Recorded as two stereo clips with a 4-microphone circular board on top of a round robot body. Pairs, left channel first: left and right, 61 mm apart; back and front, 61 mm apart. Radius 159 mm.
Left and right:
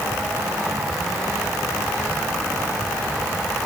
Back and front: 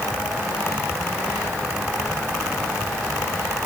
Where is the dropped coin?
I don't hear a dropped coin.